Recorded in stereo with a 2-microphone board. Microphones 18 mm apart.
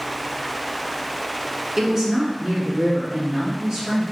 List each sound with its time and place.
1.8 s a woman speaking: 25° right (ahead or behind), 1.6 m; by 4.0 s 30° right (ahead or behind), 3 m